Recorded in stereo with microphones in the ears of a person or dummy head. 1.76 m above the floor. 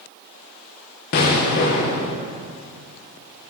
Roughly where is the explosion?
Left.